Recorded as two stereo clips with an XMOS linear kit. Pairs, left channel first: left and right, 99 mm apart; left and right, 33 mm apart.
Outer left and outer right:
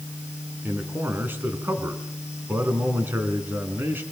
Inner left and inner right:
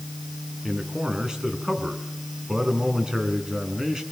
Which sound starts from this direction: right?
A man speaking, at 0.6 s.